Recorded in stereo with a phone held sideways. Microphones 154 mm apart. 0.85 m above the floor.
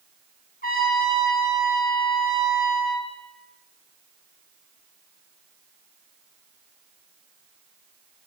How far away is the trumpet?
About 1.5 m.